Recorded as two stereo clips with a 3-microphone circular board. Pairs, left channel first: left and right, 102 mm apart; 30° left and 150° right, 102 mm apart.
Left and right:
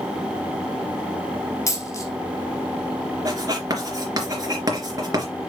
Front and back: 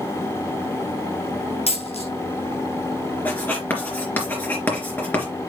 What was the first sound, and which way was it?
A dropped coin, 35° left.